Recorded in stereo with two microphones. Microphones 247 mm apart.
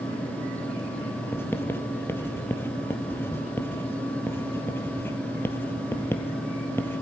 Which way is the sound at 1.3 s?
10° left (ahead or behind).